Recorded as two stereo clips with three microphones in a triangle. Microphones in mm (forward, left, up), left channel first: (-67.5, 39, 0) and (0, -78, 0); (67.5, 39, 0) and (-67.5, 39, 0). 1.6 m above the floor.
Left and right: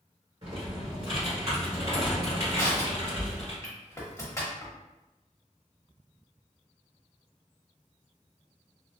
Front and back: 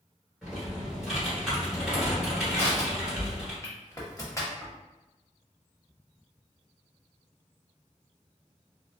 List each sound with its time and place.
0.4 s typing on a keyboard: 95° right, 1.9 m
2.5 s crushing: 60° left, 0.9 m